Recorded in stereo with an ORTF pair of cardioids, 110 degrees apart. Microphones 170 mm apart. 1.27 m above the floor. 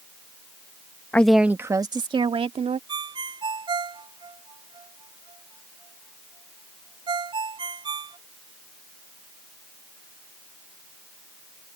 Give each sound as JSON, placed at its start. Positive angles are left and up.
{"t": 1.1, "sound": "a woman speaking", "azimuth_deg": 10}
{"t": 2.9, "sound": "a ringtone", "azimuth_deg": -30}